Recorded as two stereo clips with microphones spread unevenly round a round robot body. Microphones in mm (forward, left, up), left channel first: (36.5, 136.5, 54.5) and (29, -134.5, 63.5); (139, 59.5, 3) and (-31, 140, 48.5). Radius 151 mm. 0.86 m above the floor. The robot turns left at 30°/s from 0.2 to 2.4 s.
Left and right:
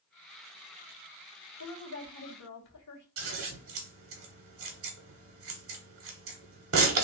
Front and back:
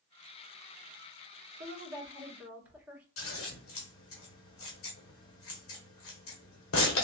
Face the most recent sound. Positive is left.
turn(degrees=-55)